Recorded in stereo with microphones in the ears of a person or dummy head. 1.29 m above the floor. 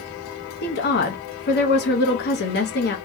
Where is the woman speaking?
50° left (ahead or behind), 0.7 m.